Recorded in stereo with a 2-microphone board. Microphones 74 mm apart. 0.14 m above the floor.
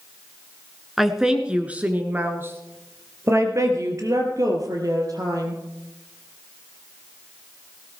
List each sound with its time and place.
1.0 s a woman speaking: 5° right (ahead or behind), 1.6 m; by 5.6 s 55° right (ahead or behind), 3.5 m